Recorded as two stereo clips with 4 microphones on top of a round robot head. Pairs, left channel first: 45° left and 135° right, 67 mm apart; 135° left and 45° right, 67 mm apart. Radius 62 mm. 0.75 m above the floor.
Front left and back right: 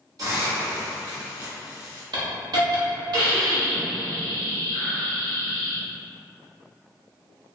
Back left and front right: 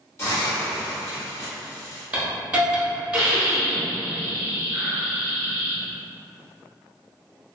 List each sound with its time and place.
0.2 s a hiss: 175° right, 1.3 m
2.1 s a hiss: 120° right, 1.0 m